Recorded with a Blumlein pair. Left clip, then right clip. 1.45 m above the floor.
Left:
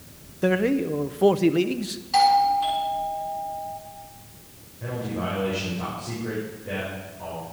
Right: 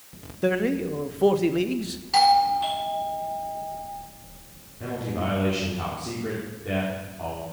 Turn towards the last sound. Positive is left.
turn(degrees=-55)